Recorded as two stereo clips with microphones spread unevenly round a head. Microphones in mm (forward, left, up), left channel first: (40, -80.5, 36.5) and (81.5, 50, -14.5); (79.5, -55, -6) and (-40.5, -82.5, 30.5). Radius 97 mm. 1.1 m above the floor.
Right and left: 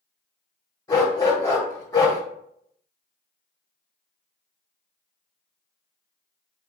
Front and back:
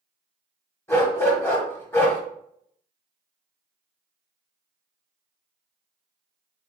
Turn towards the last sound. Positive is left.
turn(degrees=-65)